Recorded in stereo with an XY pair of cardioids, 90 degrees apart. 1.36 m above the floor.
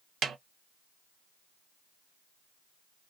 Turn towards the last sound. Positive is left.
turn(degrees=-70)